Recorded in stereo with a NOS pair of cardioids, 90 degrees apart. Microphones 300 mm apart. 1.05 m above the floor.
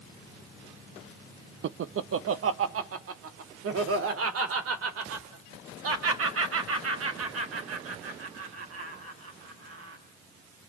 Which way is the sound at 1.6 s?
45° right.